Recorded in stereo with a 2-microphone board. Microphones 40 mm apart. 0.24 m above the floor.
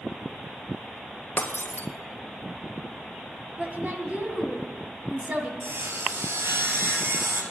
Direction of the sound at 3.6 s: 40° right (ahead or behind).